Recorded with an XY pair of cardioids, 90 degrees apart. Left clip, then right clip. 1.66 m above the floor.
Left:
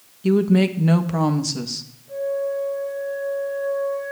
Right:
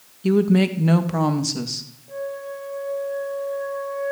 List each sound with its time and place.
0.2 s a woman speaking: straight ahead, 1.7 m
2.1 s a flute: 25° right, 5.5 m